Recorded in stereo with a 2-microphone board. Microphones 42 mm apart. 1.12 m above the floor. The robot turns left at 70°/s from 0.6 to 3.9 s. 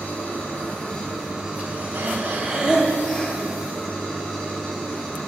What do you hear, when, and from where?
0.0 s an engine running: 40° left, 6 m; by 5.3 s 170° left, 6 m
1.9 s breathing: 110° right, 2 m; by 3.4 s 155° left, 2 m